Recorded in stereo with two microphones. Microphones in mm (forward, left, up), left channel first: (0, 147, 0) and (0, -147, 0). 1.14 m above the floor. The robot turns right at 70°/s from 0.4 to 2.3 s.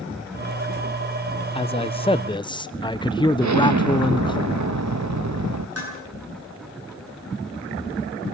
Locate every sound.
1.6 s a man speaking: 20° left (ahead or behind), 0.7 m; by 4.4 s 15° left (ahead or behind), 0.7 m
3.4 s an explosion: 80° right, 0.9 m
5.8 s dishes clattering: 60° right (ahead or behind), 9.5 m